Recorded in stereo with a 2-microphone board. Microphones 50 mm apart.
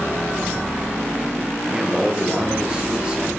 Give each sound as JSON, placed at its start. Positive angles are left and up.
{"t": 1.7, "sound": "a man speaking", "side_deg": -15, "distance_m": 6.0}